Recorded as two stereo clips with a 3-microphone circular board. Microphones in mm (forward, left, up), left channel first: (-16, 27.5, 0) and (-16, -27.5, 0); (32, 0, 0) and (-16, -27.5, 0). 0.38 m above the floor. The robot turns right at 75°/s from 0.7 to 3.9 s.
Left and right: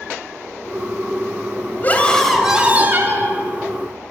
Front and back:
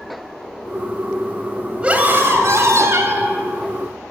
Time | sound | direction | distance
1.8 | a scream | 140° left | 1.6 m